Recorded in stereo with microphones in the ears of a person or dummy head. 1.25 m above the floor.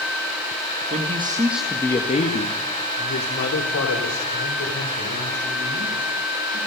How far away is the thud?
I don't hear a thud.